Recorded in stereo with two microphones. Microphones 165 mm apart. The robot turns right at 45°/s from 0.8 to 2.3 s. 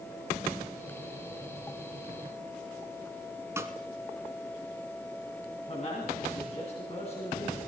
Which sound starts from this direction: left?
A man speaking, at 5.7 s.